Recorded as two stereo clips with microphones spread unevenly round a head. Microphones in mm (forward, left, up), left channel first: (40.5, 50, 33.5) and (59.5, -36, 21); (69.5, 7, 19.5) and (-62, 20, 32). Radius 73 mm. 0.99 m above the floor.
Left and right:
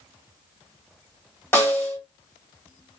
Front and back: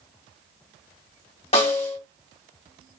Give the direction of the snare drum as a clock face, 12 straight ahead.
11 o'clock.